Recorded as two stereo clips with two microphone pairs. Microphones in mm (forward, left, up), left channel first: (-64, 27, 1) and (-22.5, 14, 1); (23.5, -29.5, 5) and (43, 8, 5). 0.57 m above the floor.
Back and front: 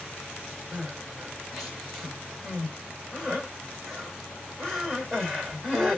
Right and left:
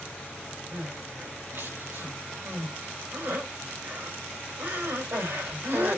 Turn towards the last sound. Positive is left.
turn(degrees=80)